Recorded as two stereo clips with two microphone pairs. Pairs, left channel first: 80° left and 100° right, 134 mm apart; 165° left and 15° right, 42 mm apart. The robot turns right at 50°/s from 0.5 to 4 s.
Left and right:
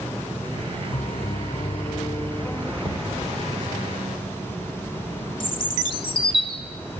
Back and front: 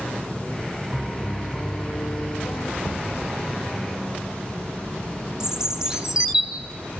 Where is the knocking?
40° right, 2.5 m; by 3.2 s 25° right, 2.5 m.